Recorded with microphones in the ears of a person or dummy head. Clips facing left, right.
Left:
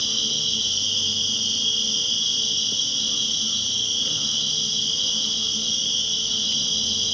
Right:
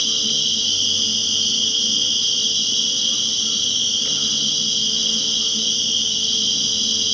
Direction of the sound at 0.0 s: 60° right (ahead or behind).